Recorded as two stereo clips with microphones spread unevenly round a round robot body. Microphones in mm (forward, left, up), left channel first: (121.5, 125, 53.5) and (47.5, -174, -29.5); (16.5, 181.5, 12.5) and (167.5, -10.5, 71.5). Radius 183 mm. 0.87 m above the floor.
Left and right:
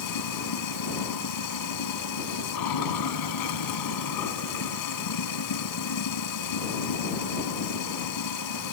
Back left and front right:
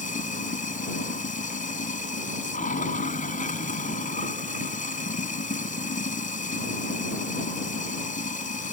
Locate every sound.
0.0 s running water: 70° left